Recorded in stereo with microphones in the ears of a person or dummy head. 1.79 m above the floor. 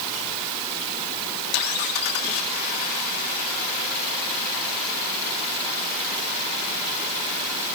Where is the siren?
I don't hear a siren.